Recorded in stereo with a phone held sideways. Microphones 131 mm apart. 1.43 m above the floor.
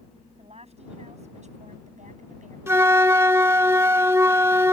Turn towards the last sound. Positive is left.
turn(degrees=-20)  # may be behind; listen again after turning